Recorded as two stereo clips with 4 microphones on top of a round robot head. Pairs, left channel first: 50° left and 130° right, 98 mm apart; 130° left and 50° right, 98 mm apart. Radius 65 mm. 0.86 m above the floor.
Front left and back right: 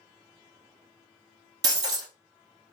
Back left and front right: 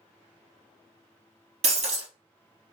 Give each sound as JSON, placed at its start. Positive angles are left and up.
{"t": 1.6, "sound": "breaking glass", "azimuth_deg": -70, "distance_m": 2.0}